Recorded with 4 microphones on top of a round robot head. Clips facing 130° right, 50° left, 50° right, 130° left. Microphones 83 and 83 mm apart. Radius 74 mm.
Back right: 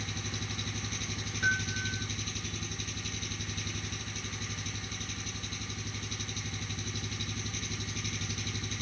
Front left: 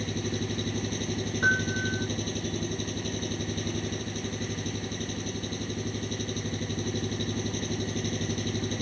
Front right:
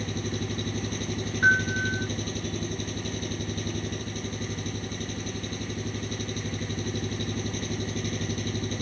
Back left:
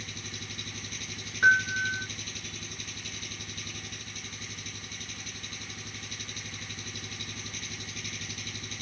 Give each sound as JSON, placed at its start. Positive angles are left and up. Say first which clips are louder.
{"t": 0.0, "sound": "an engine running", "louder": "front left 9 dB, front right 12 dB", "azimuth_deg": 0}
{"t": 1.4, "sound": "a piano", "louder": "front left 5 dB, even", "azimuth_deg": 40}